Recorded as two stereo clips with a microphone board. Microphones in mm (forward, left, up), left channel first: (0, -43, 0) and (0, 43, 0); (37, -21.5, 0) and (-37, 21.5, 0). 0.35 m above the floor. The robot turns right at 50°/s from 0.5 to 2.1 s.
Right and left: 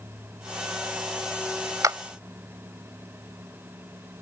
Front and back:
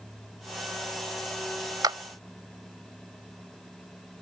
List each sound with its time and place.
1.8 s a clap: 125° left; by 2.0 s 135° left